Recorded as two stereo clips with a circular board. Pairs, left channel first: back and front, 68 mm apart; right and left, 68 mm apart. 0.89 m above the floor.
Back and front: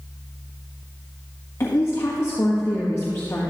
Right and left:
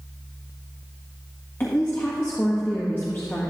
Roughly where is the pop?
I don't hear a pop.